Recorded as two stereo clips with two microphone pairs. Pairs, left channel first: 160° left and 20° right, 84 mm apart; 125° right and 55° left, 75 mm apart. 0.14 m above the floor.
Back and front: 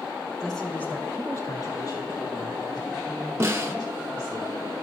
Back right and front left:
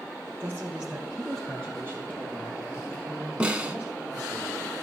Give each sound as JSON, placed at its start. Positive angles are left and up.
{"t": 0.4, "sound": "a man speaking", "azimuth_deg": 65, "distance_m": 1.3}
{"t": 3.4, "sound": "a snare drum", "azimuth_deg": -5, "distance_m": 1.0}